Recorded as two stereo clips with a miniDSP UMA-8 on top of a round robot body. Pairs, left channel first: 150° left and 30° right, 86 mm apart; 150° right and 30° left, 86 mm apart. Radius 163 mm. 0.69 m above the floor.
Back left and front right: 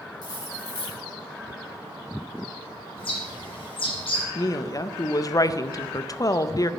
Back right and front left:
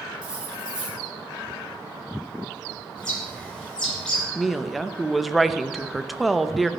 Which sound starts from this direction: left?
Cutlery clinking, at 0.2 s.